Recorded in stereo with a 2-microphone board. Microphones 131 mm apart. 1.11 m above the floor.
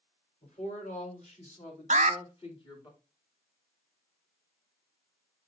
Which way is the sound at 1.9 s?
65° right (ahead or behind).